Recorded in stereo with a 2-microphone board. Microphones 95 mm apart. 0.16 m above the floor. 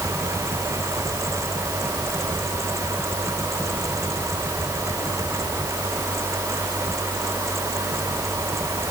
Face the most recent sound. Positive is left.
No sound to turn to.